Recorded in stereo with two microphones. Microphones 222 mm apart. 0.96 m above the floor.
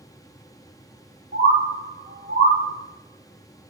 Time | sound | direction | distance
1.3 | a bird | 50° right (ahead or behind) | 0.7 m